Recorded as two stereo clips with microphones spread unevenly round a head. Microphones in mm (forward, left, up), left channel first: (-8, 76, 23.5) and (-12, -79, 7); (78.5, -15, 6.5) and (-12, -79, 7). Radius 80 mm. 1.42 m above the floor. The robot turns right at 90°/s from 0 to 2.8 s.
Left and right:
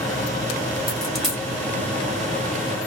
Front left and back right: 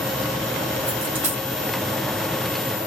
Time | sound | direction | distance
0.9 | a dropped coin | 140° left | 0.8 m